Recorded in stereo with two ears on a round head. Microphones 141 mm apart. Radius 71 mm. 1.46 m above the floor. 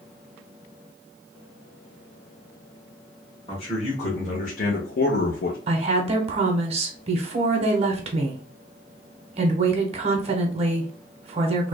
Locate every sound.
3.5 s a man speaking: 35° left (ahead or behind), 1.4 m; by 5.6 s 65° left (ahead or behind), 0.6 m
5.7 s a woman speaking: 40° right (ahead or behind), 0.8 m